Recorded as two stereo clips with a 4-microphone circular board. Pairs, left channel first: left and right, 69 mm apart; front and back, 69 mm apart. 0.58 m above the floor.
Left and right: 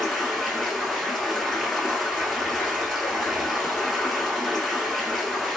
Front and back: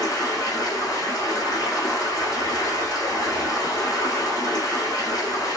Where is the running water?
5° right, 1.1 m.